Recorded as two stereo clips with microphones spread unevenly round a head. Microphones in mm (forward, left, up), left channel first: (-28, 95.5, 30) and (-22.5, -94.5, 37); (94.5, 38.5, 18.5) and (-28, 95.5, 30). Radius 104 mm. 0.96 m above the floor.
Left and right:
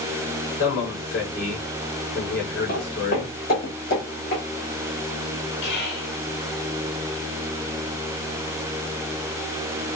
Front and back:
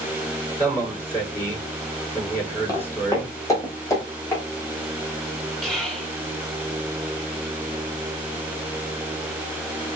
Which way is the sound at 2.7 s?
40° left.